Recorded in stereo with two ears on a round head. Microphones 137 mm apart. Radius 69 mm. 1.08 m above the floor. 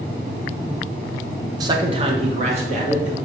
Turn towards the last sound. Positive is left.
turn(degrees=-50)  # may be behind; listen again after turning